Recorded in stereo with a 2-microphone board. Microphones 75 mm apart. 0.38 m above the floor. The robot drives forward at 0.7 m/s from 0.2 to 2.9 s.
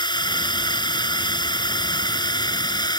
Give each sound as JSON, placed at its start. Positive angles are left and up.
{"t": 0.0, "sound": "a drone", "side_deg": 80}